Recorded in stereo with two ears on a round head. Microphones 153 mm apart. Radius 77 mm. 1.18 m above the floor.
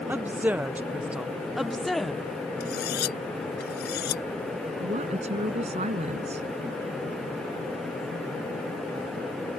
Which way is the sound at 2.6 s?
65° left (ahead or behind).